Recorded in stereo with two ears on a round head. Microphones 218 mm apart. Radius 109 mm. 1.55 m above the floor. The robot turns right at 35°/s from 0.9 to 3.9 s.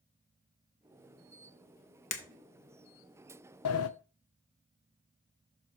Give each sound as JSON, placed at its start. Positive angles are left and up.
{"t": 2.1, "sound": "breaking glass", "side_deg": 30, "distance_m": 1.1}
{"t": 3.6, "sound": "a sliding door", "side_deg": 65, "distance_m": 0.6}